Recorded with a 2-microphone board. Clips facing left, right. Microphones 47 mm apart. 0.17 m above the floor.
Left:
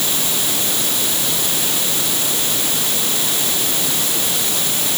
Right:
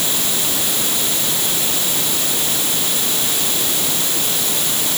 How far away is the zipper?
No zipper in this recording.